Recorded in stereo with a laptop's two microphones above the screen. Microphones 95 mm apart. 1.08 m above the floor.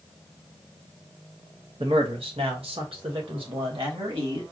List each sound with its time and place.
1.8 s a man speaking: 70° right (ahead or behind), 0.8 m; by 4.4 s 65° right (ahead or behind), 2.5 m